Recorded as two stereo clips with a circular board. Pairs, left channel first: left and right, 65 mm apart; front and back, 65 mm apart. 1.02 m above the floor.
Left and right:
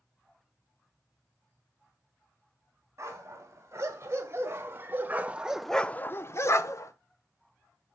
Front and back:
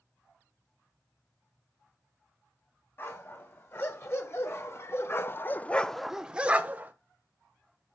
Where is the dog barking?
50° right, 2.5 m; by 6.9 s 120° left, 1.2 m.